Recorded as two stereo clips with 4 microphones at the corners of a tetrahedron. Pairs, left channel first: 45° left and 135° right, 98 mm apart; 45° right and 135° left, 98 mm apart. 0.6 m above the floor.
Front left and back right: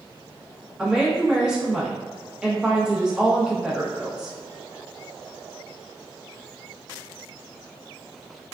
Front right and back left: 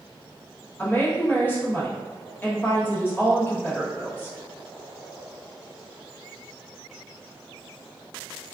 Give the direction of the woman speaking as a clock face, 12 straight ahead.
2 o'clock.